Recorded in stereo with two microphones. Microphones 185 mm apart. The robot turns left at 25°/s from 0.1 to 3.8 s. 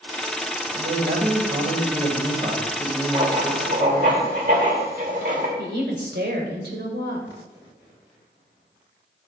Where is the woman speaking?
65° right (ahead or behind), 2.5 m.